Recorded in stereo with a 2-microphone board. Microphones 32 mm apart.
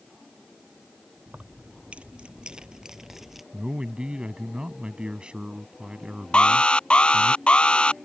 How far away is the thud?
No thud in this recording.